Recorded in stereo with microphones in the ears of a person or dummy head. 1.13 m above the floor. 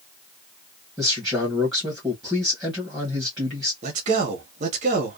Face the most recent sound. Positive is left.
turn(degrees=-40)  # may be behind; listen again after turning